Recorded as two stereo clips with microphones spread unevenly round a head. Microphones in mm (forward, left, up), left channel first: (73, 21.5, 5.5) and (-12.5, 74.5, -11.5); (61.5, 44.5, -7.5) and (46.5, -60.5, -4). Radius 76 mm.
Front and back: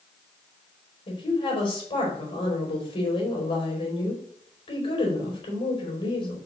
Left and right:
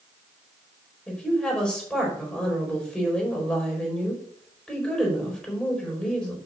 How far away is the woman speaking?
About 4.5 m.